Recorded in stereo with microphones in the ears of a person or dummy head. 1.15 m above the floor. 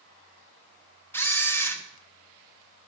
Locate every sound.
1.1 s a camera shutter: 5° left (ahead or behind), 0.7 m